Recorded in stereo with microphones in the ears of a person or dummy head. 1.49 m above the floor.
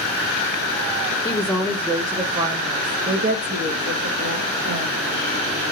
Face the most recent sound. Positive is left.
turn(degrees=-60)  # may be behind; listen again after turning